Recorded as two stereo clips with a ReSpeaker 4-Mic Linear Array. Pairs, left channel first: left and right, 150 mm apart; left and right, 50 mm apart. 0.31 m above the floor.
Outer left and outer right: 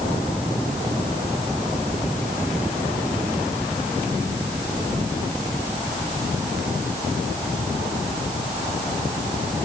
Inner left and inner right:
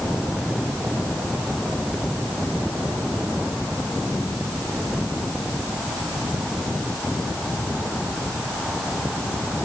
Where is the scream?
No scream in this recording.